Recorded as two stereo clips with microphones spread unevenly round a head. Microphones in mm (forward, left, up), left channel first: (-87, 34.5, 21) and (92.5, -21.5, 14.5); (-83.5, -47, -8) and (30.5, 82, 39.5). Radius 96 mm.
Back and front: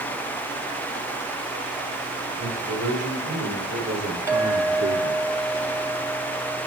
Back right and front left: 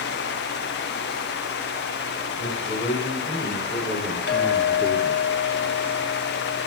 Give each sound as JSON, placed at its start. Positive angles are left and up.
{"t": 2.4, "sound": "a man speaking", "azimuth_deg": -45, "distance_m": 6.5}
{"t": 4.3, "sound": "a clink", "azimuth_deg": -95, "distance_m": 2.0}